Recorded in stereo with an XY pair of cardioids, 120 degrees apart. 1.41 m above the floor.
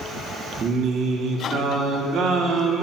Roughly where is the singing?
Ahead right.